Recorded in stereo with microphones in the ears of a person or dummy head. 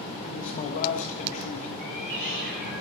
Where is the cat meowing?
65° right (ahead or behind), 4 m.